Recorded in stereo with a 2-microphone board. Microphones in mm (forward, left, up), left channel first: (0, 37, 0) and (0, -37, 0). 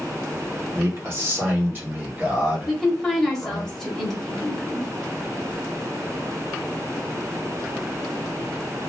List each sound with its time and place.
0.7 s a man speaking: 35° right (ahead or behind), 1.7 m; by 3.7 s centre (ahead or behind), 1.6 m
2.7 s a woman speaking: centre (ahead or behind), 1.0 m